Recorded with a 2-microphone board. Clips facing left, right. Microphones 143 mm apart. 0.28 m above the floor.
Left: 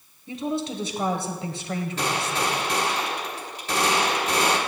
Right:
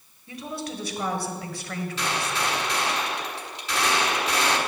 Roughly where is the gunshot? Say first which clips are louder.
Left 1 dB; left.